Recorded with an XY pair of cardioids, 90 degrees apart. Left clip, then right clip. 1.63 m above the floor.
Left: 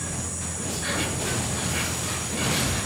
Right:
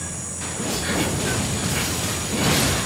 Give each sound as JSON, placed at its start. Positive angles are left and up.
{"t": 0.0, "sound": "an insect", "azimuth_deg": -5, "distance_m": 3.0}